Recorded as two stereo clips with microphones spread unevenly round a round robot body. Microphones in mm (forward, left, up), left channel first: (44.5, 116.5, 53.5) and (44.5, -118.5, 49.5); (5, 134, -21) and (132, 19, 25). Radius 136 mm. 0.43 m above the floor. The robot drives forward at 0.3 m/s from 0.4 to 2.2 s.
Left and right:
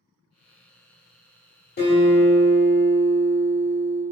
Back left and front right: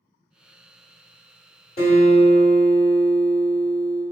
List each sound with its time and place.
1.8 s a guitar: 130° left, 1.3 m; by 4.0 s 135° left, 1.4 m